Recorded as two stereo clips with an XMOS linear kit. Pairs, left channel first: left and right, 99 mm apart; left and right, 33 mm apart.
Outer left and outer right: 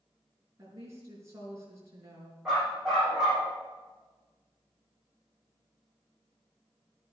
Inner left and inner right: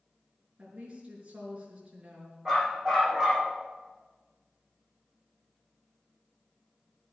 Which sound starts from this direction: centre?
A dog barking, at 2.5 s.